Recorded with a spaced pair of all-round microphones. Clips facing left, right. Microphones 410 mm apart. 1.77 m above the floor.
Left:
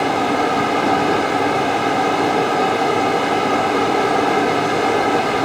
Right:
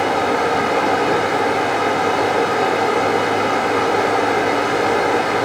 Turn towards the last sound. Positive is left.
turn(degrees=50)  # may be behind; listen again after turning